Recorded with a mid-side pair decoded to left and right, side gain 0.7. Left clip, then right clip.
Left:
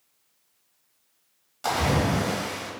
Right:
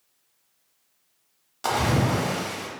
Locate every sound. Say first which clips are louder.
1.6 s a splash: right 1 dB; 20° right, 0.9 m